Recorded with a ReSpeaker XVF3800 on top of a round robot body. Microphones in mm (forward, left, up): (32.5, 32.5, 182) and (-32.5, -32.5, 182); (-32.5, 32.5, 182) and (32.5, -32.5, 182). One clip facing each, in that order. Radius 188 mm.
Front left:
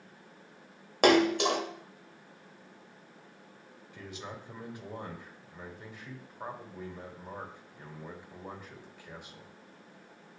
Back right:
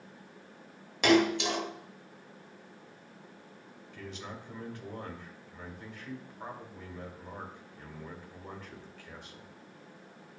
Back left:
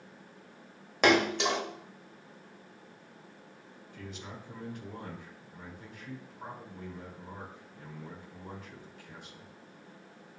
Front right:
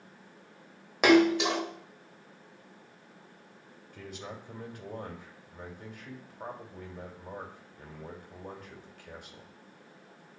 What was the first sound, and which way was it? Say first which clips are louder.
A splash: front left 2 dB, front right 4 dB; 40° left.